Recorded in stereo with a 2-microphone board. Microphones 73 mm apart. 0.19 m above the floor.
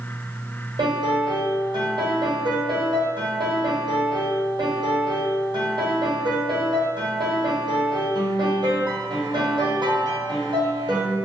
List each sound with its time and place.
0.8 s a piano: 80° right, 1.5 m